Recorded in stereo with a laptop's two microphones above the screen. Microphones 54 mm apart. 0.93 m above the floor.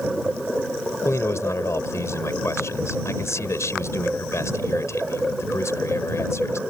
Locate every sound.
1.1 s a man speaking: 65° left (ahead or behind)